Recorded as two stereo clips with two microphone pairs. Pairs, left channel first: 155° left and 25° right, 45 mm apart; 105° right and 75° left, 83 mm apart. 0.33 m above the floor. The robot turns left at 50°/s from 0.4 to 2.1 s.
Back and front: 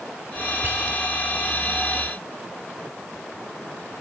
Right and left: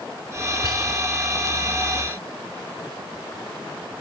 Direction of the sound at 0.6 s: 65° right.